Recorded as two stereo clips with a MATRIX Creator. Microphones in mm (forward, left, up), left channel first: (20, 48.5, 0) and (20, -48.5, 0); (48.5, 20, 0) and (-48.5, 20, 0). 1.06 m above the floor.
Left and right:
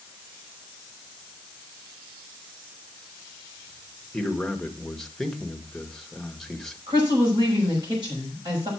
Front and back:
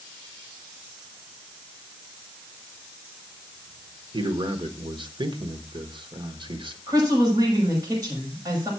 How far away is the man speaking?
About 1.3 m.